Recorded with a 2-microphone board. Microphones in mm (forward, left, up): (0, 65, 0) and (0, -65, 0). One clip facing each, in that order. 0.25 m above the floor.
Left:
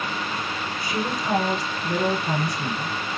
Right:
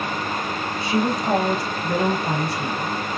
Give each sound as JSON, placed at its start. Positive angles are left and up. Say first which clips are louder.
{"t": 0.8, "sound": "a woman speaking", "louder": "right 6 dB", "side_deg": -30, "distance_m": 1.1}